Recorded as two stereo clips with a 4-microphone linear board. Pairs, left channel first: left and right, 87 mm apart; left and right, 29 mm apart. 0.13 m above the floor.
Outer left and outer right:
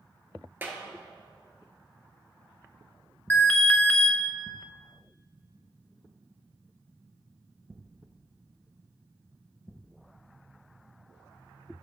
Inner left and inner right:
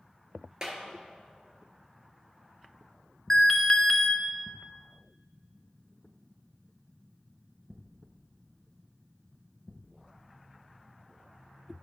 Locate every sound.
0.6 s a clap: 25° right (ahead or behind), 1.5 m
3.3 s an alarm: 20° left (ahead or behind), 1.1 m